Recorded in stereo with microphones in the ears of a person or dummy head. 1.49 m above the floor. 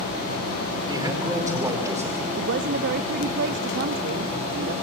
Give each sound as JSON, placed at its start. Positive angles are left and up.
{"t": 0.9, "sound": "a man speaking", "side_deg": -25, "distance_m": 5.0}
{"t": 2.4, "sound": "a woman speaking", "side_deg": -60, "distance_m": 0.6}